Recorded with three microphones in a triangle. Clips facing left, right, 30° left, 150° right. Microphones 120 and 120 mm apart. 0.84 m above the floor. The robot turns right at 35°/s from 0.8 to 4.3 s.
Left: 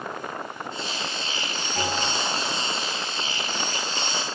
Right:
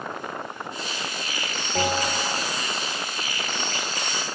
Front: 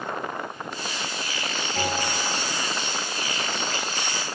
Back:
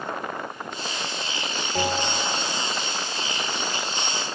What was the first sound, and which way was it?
A bell, 110° right.